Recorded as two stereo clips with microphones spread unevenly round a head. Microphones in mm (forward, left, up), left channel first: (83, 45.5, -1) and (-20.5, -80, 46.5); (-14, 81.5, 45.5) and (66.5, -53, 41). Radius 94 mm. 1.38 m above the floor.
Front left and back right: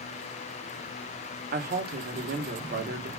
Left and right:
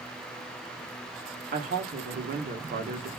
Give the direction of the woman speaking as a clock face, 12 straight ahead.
3 o'clock.